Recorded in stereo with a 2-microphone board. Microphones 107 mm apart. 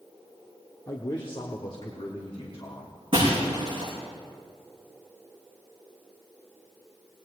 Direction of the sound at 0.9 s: 40° left (ahead or behind).